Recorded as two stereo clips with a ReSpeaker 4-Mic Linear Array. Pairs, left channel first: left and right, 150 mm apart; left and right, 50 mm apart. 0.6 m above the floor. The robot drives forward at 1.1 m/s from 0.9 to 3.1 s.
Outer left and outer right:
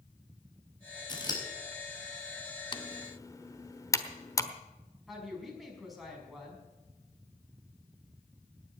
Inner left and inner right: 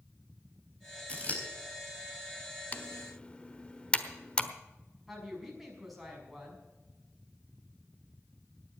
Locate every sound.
1.1 s scissors: 30° left (ahead or behind), 4 m; by 1.4 s 25° left (ahead or behind), 4.5 m
2.7 s typing on a keyboard: 30° left (ahead or behind), 0.8 m; by 4.5 s 20° left (ahead or behind), 1.2 m
5.1 s a woman speaking: centre (ahead or behind), 5.5 m